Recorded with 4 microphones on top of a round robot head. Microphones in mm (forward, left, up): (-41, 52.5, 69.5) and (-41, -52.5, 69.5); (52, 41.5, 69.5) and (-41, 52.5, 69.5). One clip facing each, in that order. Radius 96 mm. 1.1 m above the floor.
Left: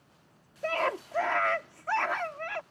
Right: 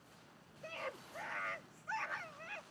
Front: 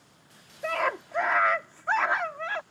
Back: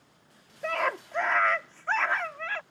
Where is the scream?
80° left; by 2.6 s 60° left.